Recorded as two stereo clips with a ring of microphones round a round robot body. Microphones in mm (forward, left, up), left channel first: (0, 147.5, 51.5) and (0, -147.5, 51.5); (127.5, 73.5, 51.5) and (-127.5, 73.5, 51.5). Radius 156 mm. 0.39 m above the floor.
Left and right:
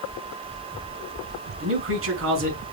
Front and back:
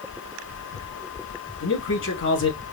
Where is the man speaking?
45° right, 4 m.